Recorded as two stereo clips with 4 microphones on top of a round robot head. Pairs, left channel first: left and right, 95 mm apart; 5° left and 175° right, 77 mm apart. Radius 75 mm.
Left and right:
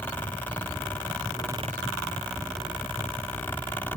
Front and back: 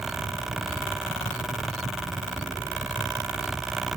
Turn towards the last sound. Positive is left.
No sound to turn to.